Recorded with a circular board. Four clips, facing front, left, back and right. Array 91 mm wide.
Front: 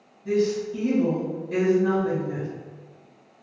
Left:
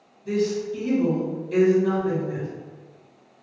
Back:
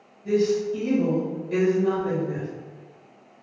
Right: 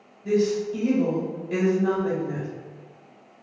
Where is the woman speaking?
100° right, 1.4 m.